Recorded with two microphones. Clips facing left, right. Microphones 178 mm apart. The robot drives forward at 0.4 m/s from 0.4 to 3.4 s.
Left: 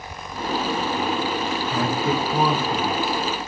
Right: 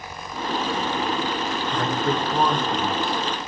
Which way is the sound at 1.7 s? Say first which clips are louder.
Left 1 dB; 5° left (ahead or behind).